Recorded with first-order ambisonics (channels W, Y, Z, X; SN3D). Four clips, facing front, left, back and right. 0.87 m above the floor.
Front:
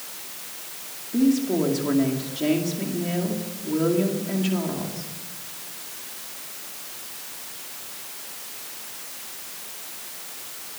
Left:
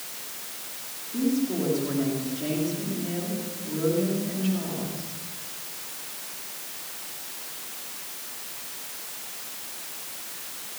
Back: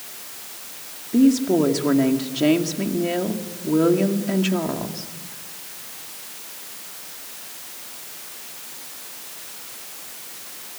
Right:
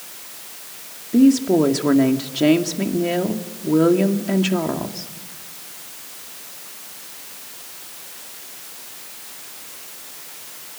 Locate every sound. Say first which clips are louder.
1.1 s a woman speaking: right 12 dB, back 4 dB; 115° right, 2.5 m